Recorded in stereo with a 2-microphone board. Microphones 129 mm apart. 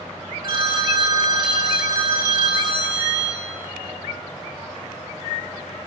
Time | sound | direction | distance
0.4 | a phone ringing | 35° right (ahead or behind) | 1.0 m